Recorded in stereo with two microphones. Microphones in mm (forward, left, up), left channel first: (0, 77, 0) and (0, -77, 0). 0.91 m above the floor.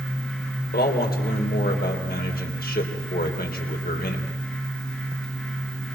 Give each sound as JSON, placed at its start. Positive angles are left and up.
{"t": 0.7, "sound": "a man speaking", "side_deg": 80, "distance_m": 3.5}